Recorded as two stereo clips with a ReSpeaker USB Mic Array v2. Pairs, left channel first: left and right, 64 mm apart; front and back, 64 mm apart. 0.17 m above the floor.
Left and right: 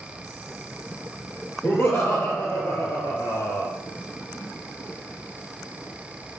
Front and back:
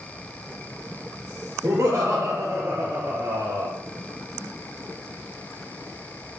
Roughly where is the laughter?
Behind left.